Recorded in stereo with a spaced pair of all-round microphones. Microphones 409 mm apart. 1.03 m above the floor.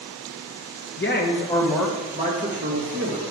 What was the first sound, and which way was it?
A man speaking, 30° left (ahead or behind).